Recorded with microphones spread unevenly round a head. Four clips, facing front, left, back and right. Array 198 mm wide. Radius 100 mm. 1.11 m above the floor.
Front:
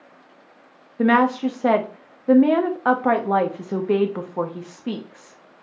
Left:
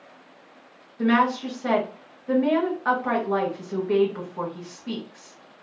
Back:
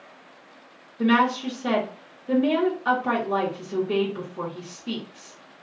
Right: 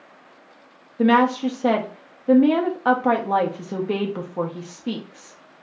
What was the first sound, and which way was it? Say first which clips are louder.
A woman speaking: right 4 dB, front 3 dB; 30° right.